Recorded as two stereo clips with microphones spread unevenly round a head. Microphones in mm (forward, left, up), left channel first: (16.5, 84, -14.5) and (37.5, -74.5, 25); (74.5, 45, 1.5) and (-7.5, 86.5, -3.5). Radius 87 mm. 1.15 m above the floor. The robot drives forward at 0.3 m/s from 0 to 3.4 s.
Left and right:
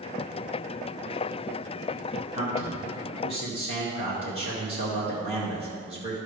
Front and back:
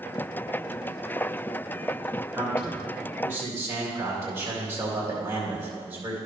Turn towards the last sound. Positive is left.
turn(degrees=-145)